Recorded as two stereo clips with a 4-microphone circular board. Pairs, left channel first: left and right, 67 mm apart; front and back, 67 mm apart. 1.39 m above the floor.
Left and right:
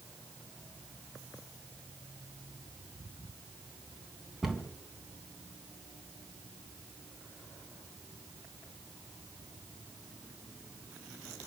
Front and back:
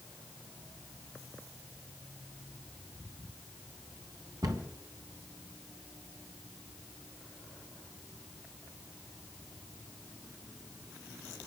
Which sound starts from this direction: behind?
A cupboard door, at 4.4 s.